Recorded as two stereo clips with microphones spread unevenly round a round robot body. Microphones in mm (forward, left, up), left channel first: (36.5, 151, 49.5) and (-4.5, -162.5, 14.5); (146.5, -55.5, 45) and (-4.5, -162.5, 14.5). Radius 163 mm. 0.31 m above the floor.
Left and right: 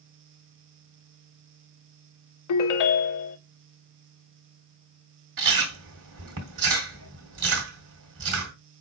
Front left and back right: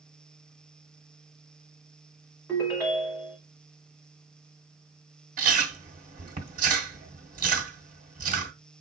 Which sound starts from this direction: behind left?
A ringtone, at 2.5 s.